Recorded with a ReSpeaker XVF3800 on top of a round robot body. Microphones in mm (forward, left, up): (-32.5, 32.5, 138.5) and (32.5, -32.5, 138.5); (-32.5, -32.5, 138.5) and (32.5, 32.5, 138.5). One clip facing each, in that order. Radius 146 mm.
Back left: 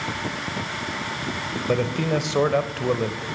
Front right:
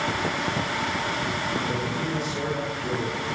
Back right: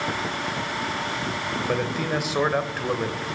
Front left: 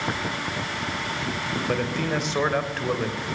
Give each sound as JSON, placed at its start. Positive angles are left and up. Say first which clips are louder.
{"t": 1.7, "sound": "a man speaking", "louder": "back left 5 dB, even", "azimuth_deg": 140, "distance_m": 3.5}